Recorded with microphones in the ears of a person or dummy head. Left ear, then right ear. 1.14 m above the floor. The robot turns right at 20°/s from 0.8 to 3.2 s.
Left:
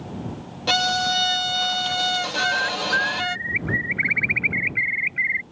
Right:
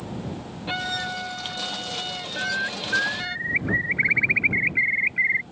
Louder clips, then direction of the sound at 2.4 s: Left 1 dB; 20° left (ahead or behind).